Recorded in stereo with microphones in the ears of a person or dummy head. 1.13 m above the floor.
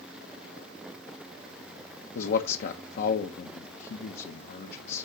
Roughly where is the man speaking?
Left.